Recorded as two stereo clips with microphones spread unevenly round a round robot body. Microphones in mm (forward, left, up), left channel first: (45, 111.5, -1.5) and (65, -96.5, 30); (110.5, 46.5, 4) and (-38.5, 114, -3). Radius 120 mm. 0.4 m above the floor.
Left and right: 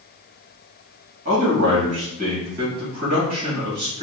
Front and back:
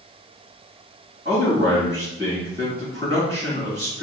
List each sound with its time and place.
1.2 s a man speaking: 135° right, 1.9 m